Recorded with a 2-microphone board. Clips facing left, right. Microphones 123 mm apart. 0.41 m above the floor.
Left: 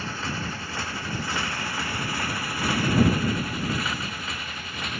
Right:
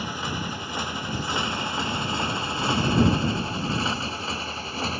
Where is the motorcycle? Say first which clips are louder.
Right 1 dB; 15° right (ahead or behind); by 5.0 s 30° right (ahead or behind).